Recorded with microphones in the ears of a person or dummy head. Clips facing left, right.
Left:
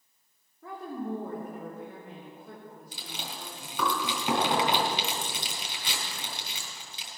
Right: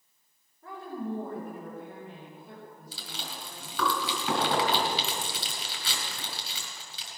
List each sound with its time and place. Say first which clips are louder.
0.6 s a woman speaking: left 1 dB; 70° left (ahead or behind), 3.5 m
2.9 s chewing: left 1 dB; 15° left (ahead or behind), 4 m